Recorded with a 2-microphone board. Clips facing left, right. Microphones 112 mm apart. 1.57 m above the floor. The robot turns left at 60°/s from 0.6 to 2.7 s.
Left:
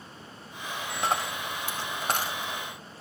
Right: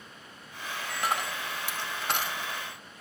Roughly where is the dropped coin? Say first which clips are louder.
Left 2 dB; left.